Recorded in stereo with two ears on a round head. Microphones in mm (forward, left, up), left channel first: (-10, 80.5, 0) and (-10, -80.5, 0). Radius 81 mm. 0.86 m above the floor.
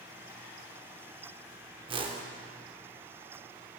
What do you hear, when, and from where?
1.9 s a whoosh: 30° right (ahead or behind), 0.8 m